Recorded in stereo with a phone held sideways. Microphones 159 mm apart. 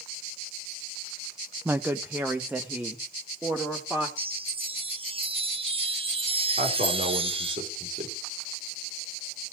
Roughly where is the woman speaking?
Centre.